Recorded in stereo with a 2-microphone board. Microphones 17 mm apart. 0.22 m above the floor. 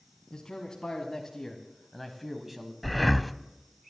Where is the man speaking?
50° left (ahead or behind), 2 m; by 2.7 s 25° right (ahead or behind), 1.6 m.